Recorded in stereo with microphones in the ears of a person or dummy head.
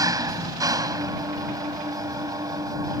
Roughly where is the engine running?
Centre.